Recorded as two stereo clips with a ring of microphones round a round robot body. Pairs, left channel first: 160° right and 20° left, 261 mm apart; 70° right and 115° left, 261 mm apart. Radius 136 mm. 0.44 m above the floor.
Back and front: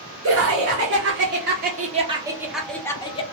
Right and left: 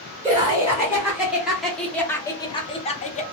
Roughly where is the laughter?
Ahead left.